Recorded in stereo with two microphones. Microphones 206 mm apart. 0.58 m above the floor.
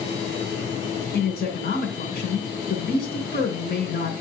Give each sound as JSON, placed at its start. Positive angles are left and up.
{"t": 1.1, "sound": "a man speaking", "side_deg": 55, "distance_m": 2.5}